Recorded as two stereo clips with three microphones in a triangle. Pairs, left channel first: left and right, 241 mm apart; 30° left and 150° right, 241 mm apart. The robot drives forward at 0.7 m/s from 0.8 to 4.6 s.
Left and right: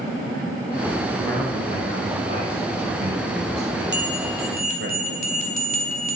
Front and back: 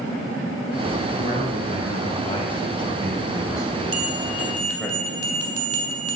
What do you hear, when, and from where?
1.1 s a man speaking: 30° right, 4.5 m; by 4.9 s 60° right, 2.5 m
3.9 s a bell: 130° right, 1.6 m; by 6.2 s 145° right, 1.9 m